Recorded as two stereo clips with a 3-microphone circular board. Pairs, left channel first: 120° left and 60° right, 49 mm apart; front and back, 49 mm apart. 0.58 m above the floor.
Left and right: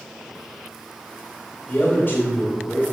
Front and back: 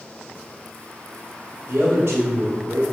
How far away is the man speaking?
About 2 m.